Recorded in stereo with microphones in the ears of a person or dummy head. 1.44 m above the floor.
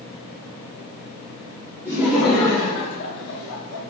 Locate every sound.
1.9 s laughter: 15° right (ahead or behind), 0.8 m; by 3.8 s 75° left (ahead or behind), 0.9 m